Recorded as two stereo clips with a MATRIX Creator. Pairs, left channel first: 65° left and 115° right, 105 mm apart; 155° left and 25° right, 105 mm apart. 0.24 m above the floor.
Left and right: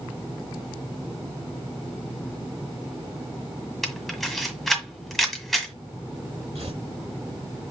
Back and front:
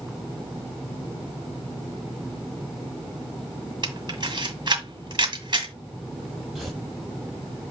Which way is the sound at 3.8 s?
20° right.